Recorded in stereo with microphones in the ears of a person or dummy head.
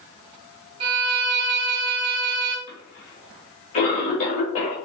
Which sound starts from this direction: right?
A violin, at 0.8 s.